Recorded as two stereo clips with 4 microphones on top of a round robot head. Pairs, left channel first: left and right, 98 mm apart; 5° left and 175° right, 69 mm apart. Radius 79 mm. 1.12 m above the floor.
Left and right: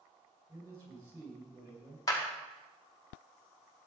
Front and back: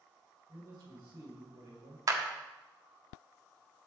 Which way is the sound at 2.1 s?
150° left.